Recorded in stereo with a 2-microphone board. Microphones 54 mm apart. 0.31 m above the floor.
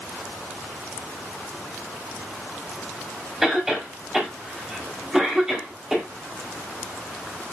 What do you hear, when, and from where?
3.4 s a cough: 10° right (ahead or behind), 1.4 m